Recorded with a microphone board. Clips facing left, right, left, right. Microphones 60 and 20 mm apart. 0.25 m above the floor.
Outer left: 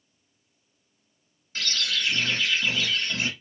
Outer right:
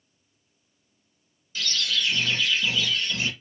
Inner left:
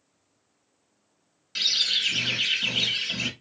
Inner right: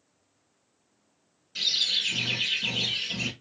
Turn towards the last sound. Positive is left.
turn(degrees=50)  # may be behind; listen again after turning